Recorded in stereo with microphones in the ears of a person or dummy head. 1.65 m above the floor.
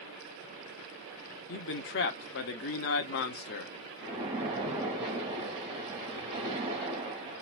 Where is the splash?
25° right (ahead or behind), 2 m.